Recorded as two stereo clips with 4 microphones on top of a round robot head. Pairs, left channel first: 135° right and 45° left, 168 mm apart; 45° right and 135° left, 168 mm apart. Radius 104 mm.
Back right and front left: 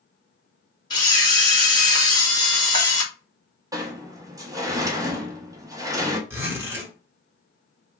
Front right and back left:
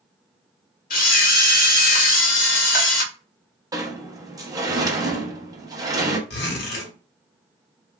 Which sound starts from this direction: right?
A camera shutter, at 0.9 s.